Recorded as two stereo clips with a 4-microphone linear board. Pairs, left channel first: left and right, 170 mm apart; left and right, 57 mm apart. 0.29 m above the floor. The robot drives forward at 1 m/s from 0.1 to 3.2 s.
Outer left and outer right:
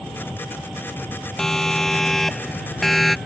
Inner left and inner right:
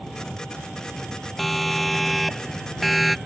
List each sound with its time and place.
0.0 s an engine running: centre (ahead or behind)
1.4 s a siren: 5° left (ahead or behind); by 3.2 s centre (ahead or behind)